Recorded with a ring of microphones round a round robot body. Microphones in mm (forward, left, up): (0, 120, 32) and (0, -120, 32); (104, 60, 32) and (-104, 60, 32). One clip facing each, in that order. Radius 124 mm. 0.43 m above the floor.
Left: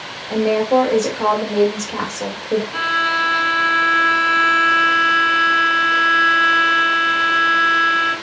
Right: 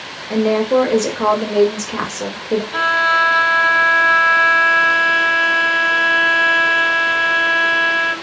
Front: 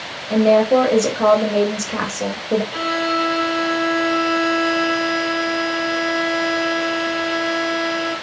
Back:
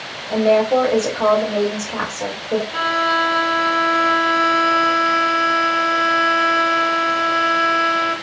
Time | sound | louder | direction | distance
0.3 | a woman speaking | right 1 dB, front 2 dB | 40° right | 1.6 m
2.7 | a violin | right 3 dB, front 2 dB | 45° right | 2.5 m